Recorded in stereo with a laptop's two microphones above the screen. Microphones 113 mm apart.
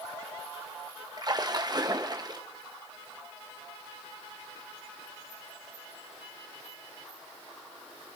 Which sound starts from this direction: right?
A splash, at 1.2 s.